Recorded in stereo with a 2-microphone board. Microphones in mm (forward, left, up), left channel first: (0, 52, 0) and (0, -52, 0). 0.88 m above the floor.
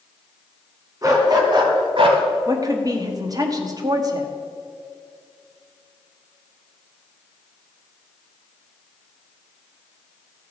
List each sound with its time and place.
1.0 s a dog barking: 35° right (ahead or behind), 2 m; by 2.2 s 65° right (ahead or behind), 1.3 m
2.5 s a woman speaking: 35° right (ahead or behind), 1.4 m